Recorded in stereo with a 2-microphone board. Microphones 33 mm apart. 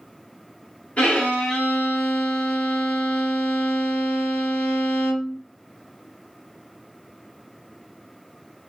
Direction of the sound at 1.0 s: 40° left (ahead or behind).